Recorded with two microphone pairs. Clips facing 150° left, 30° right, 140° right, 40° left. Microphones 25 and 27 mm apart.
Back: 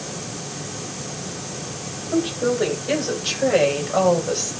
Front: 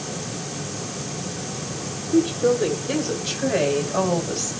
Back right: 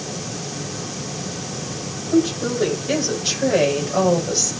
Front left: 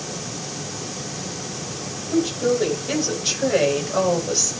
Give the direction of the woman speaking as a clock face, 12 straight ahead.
8 o'clock.